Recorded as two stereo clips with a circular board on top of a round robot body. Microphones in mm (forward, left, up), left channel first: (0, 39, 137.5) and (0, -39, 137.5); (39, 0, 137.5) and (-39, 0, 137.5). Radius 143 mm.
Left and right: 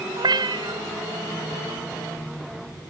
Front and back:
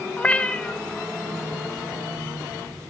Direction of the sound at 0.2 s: 75° right.